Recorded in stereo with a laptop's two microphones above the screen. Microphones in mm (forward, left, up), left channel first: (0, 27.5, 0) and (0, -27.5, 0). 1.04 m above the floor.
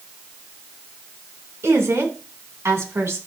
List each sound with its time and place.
1.6 s a woman speaking: 55° right (ahead or behind), 3 m